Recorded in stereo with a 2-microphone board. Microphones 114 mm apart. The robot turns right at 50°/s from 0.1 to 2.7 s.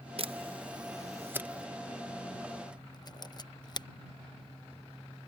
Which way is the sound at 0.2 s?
55° right (ahead or behind).